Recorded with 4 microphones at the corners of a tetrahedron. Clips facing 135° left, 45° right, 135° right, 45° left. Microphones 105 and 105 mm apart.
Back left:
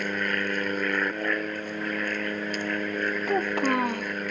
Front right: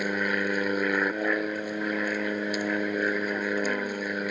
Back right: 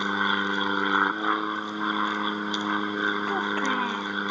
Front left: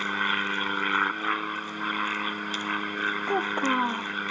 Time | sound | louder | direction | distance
0.0 | an aircraft | front right 1 dB, back right 3 dB | 105° right | ?
3.3 | a child speaking | back left 3 dB, front left 1 dB | 115° left | ?